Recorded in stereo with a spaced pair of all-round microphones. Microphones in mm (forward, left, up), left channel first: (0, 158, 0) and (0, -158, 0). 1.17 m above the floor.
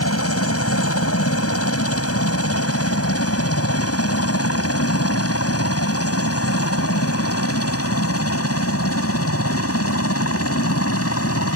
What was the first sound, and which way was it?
A helicopter, 45° left (ahead or behind).